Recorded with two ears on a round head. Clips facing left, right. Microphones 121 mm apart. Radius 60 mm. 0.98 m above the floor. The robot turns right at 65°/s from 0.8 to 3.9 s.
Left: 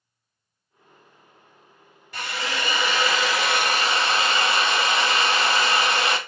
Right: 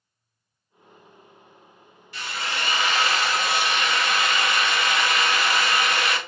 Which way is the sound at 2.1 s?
40° left.